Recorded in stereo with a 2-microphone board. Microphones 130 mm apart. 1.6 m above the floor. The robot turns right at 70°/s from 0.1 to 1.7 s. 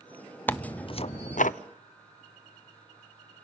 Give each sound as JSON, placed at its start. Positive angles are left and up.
{"t": 0.5, "sound": "tearing paper", "azimuth_deg": 15, "distance_m": 0.5}